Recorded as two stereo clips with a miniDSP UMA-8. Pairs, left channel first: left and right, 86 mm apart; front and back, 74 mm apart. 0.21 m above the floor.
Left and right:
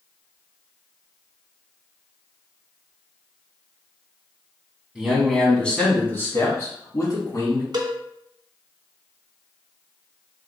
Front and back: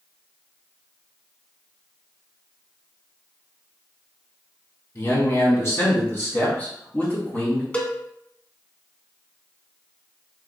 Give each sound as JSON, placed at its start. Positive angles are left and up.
{"t": 5.0, "sound": "a man speaking", "azimuth_deg": -15, "distance_m": 1.3}
{"t": 7.7, "sound": "a cowbell", "azimuth_deg": -70, "distance_m": 0.6}